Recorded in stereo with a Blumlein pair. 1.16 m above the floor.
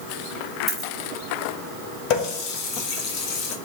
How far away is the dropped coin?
About 1.5 m.